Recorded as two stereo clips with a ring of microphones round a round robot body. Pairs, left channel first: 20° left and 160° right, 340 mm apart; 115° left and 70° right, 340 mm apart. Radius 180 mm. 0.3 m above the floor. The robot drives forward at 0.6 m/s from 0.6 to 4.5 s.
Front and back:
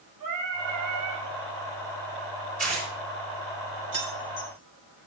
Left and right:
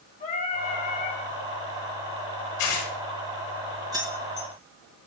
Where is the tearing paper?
135° left, 4.5 m; by 2.9 s 140° left, 4.5 m.